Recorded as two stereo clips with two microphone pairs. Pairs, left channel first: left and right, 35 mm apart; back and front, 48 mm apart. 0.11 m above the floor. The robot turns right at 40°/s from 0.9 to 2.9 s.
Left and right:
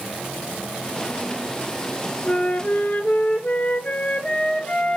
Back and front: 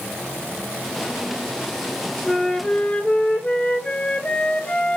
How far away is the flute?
About 0.8 m.